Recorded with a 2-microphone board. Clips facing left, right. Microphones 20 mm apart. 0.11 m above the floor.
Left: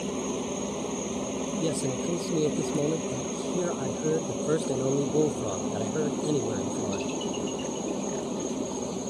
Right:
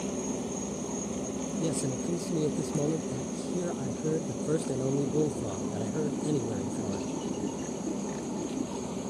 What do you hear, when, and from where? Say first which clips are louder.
0.0 s a helicopter: left 2 dB; 30° left (ahead or behind); by 9.1 s 35° left (ahead or behind)
1.6 s a man speaking: left 2 dB; 30° left (ahead or behind)